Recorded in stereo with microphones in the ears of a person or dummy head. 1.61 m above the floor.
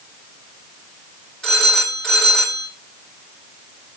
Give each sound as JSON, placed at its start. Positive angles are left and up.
{"t": 1.4, "sound": "a phone ringing", "side_deg": 5, "distance_m": 4.5}